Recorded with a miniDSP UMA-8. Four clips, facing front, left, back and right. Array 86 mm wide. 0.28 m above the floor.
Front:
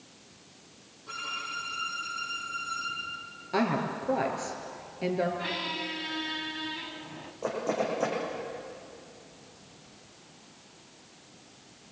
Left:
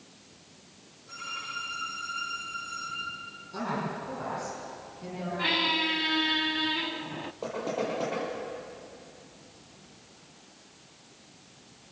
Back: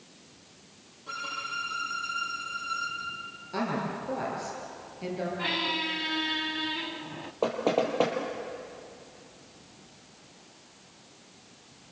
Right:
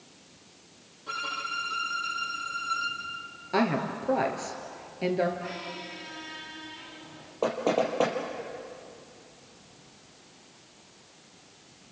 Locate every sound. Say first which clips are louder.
1.1 s a violin: right 6 dB, back 2 dB; 110° right, 8 m
3.5 s a woman speaking: right 6 dB, front 3 dB; 70° right, 5.5 m
5.4 s a squeak: left 8 dB, back 3 dB; 105° left, 0.7 m
7.4 s knocking: right 6 dB, back 4 dB; 140° right, 6 m